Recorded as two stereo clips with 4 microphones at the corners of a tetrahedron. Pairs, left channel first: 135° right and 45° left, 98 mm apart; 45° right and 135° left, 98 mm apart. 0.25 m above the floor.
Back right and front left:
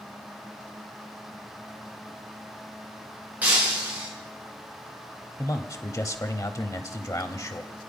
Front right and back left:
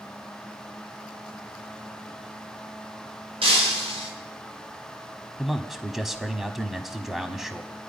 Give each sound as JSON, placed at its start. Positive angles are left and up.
{"t": 3.4, "sound": "breaking glass", "azimuth_deg": 120, "distance_m": 5.0}
{"t": 5.4, "sound": "a man speaking", "azimuth_deg": -140, "distance_m": 1.2}